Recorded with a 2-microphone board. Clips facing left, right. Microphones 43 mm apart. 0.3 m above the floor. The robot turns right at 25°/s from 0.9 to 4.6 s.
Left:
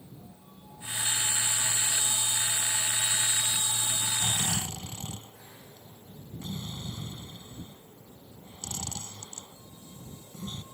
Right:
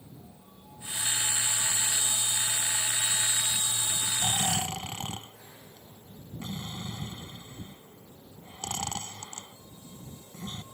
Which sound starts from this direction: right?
Snoring, at 4.2 s.